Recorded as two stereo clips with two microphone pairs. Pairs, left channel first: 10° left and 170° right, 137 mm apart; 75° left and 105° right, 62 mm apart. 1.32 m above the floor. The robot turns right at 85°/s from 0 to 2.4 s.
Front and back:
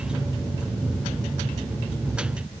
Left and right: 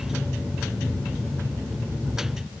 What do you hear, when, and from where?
Only background noise.